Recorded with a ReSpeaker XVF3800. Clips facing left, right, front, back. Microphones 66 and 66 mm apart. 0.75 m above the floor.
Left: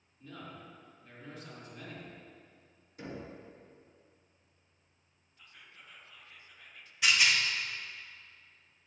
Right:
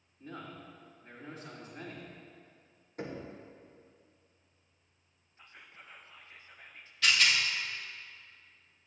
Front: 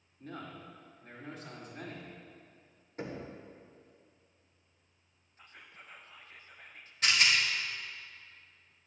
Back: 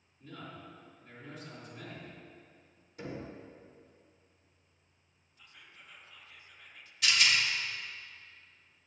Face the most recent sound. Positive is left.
turn(degrees=25)